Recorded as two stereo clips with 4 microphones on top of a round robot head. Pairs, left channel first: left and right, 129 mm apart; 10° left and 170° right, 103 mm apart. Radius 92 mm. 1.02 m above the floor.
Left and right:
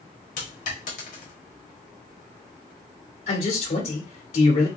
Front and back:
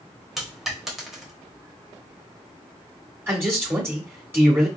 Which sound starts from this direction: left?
A dropped coin, at 0.4 s.